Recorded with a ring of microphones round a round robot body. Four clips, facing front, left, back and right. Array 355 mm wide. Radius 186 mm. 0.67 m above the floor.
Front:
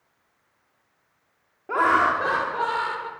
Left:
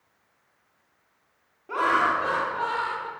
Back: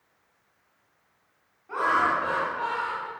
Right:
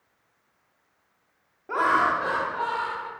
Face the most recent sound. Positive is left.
turn(degrees=0)